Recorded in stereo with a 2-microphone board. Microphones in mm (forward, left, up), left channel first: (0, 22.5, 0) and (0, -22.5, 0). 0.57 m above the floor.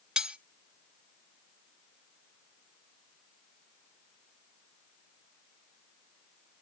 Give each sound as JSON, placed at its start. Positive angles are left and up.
{"t": 0.2, "sound": "cutlery clinking", "side_deg": -20, "distance_m": 0.6}